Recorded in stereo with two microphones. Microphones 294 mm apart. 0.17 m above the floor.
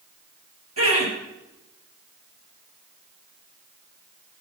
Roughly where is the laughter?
Right.